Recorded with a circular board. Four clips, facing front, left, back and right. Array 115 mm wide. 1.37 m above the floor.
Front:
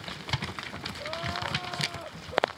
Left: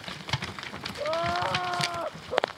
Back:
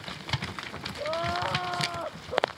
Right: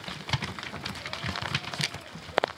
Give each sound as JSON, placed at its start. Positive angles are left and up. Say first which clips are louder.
{"t": 1.0, "sound": "crying", "louder": "left 13 dB, back 6 dB", "azimuth_deg": 110}